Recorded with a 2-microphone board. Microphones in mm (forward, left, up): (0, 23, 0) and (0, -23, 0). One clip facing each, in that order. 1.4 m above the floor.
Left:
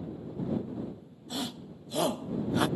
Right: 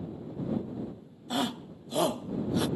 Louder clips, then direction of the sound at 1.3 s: Right 6 dB; 45° right (ahead or behind).